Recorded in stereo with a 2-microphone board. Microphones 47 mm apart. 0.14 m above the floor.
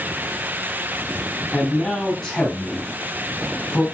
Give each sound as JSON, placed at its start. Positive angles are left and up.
{"t": 1.5, "sound": "a man speaking", "side_deg": 20, "distance_m": 5.0}